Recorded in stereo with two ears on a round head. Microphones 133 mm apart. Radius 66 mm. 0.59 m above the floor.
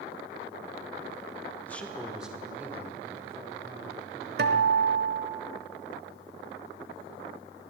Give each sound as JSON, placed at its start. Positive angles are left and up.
{"t": 1.7, "sound": "a man speaking", "side_deg": 15, "distance_m": 1.2}
{"t": 4.4, "sound": "a guitar", "side_deg": -75, "distance_m": 0.8}